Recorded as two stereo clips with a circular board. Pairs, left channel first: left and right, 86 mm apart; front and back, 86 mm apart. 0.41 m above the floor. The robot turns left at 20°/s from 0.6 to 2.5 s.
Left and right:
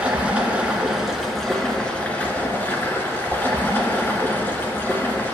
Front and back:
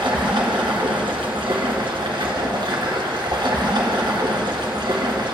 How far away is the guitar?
No guitar in this recording.